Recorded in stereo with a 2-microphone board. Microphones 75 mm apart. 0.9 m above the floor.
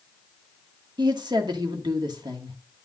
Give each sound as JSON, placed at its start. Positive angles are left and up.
{"t": 1.0, "sound": "a woman speaking", "side_deg": -75, "distance_m": 1.6}